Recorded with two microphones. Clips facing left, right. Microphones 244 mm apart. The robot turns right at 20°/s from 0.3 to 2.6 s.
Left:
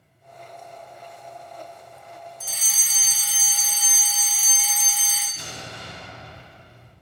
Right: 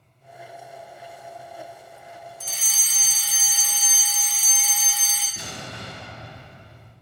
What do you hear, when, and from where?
2.4 s a fire alarm: centre (ahead or behind), 1.8 m
5.4 s an explosion: 65° right (ahead or behind), 1.9 m